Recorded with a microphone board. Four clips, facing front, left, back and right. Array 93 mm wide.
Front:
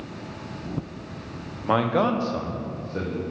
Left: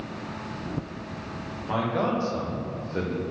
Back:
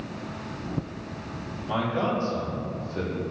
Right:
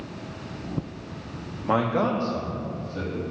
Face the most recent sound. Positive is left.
turn(degrees=65)